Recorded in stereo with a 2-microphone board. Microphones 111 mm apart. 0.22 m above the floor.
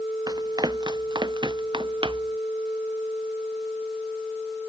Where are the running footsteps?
35° right (ahead or behind); by 2.4 s 50° right (ahead or behind).